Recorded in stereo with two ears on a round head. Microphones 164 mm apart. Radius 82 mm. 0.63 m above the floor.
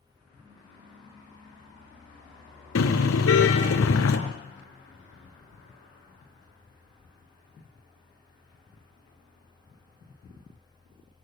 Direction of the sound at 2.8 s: 85° left.